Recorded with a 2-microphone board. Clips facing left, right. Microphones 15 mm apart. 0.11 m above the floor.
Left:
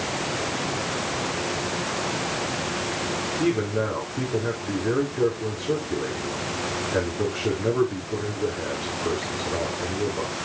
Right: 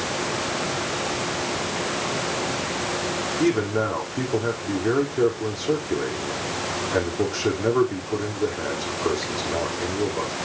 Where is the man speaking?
70° right (ahead or behind), 5 m.